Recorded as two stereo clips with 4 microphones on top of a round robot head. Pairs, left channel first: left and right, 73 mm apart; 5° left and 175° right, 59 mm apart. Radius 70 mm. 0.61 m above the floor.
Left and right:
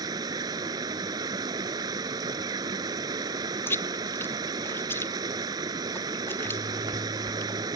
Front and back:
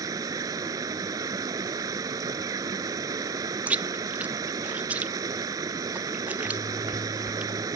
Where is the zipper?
40° right.